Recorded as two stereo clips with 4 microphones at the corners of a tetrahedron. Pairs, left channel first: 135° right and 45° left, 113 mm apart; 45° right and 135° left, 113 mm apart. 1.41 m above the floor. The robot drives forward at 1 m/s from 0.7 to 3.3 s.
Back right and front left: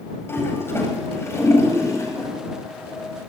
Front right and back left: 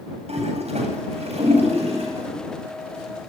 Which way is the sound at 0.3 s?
155° left.